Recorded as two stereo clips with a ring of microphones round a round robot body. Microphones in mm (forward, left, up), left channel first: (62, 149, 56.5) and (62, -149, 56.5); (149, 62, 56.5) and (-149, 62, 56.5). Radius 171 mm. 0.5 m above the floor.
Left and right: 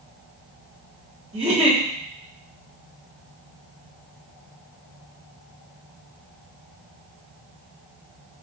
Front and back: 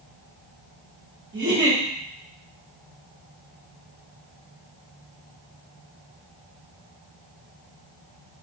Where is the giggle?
155° right, 1.6 m.